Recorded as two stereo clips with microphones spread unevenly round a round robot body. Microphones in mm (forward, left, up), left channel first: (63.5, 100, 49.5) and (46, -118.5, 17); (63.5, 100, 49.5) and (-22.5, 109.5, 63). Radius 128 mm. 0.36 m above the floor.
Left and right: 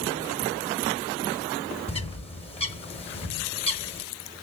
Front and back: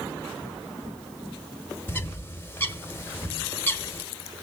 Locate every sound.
1.9 s a bird: 25° left, 1.6 m